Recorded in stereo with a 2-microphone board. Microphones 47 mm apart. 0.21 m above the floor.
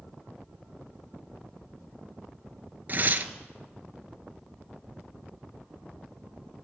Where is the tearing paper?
45° right (ahead or behind), 0.5 m.